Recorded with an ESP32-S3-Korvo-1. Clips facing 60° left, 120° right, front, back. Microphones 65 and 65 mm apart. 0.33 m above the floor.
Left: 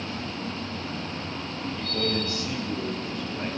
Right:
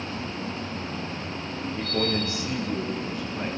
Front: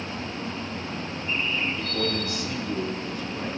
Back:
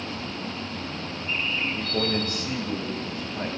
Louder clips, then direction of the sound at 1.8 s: Right 2 dB, back 1 dB; 150° right.